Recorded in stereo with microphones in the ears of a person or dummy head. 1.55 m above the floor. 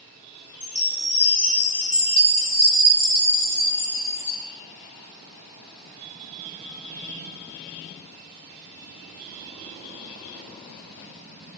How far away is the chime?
About 3.5 m.